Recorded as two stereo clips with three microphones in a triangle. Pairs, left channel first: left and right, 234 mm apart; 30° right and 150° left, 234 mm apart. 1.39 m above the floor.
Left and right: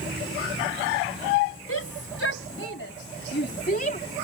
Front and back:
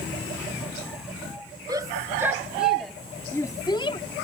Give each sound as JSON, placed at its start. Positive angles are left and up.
{"t": 1.7, "sound": "a shout", "azimuth_deg": 75}